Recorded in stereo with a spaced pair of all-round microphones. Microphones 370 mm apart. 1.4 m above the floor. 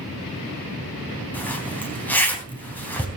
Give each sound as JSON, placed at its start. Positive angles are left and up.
{"t": 1.3, "sound": "a zipper", "side_deg": 5, "distance_m": 3.5}